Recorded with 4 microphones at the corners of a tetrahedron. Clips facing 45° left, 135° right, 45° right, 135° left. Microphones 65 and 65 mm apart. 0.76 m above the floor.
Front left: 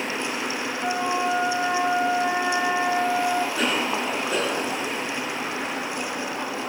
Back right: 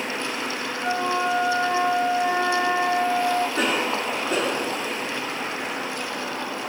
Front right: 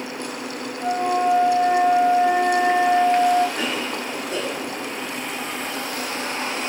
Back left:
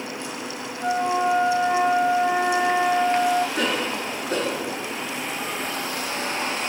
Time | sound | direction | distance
0.8 | a flute | 130° left | 4.5 m
3.5 | a cough | 165° left | 4.5 m